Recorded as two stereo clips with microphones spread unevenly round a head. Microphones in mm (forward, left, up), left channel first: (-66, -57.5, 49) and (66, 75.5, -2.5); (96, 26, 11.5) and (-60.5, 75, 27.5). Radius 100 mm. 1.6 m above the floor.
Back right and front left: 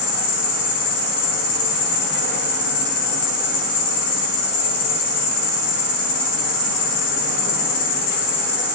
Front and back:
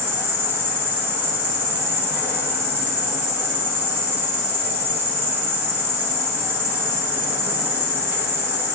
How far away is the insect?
About 3.5 m.